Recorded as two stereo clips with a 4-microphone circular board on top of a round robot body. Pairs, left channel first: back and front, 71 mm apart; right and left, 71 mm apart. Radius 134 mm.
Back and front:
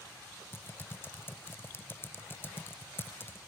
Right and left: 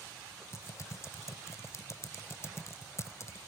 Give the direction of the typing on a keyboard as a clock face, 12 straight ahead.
4 o'clock.